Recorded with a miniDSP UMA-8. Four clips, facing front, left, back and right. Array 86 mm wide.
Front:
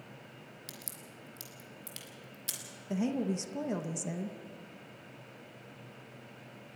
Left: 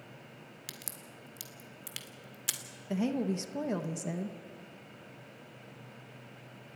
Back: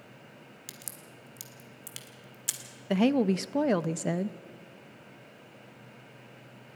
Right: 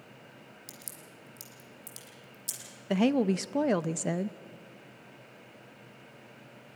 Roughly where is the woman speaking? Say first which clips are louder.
Right 6 dB, back 8 dB; behind right.